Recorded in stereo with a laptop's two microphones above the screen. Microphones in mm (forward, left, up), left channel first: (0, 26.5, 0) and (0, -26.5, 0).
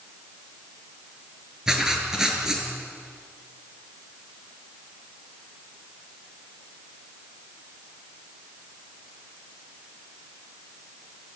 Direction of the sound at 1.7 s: 10° right (ahead or behind).